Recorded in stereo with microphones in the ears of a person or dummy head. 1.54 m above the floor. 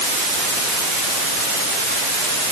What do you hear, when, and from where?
Only background noise.